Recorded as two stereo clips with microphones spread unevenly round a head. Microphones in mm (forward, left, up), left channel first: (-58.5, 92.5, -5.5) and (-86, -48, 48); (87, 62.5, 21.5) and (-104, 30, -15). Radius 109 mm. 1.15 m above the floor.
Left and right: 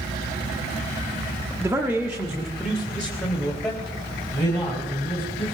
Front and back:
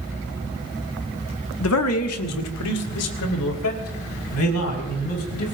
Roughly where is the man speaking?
Ahead.